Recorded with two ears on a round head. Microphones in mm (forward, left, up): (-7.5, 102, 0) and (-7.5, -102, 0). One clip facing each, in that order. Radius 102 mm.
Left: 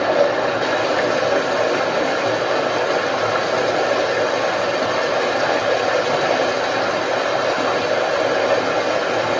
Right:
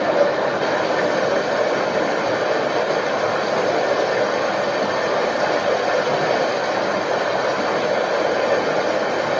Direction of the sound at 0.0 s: 5° left (ahead or behind).